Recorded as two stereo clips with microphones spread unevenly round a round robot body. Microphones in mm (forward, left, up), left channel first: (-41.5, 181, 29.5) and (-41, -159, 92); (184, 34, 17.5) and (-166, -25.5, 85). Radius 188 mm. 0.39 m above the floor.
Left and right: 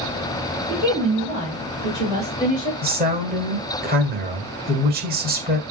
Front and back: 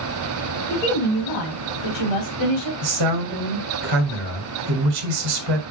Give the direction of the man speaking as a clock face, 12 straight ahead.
5 o'clock.